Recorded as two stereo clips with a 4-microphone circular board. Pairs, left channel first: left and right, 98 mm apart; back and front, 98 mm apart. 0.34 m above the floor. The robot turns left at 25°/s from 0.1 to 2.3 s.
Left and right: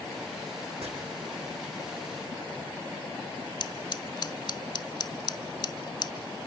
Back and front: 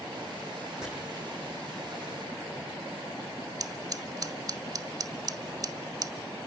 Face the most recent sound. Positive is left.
turn(degrees=50)